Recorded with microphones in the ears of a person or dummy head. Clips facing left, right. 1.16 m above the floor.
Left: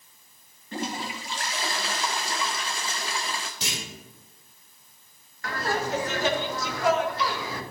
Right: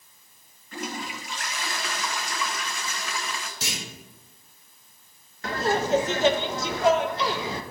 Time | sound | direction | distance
0.7 | a toilet flushing | 30° left (ahead or behind) | 0.6 m
3.6 | a clunk | 5° right (ahead or behind) | 4 m
5.4 | laughter | 20° right (ahead or behind) | 0.6 m